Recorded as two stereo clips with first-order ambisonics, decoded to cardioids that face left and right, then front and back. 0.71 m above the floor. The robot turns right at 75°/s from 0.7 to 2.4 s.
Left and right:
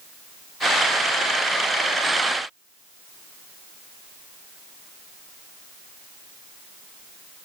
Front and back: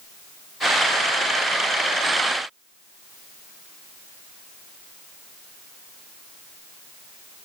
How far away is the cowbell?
I don't hear a cowbell.